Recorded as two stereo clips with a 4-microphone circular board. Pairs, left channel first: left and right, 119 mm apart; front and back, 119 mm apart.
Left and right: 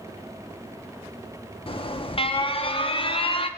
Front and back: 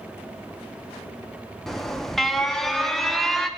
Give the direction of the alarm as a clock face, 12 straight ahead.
9 o'clock.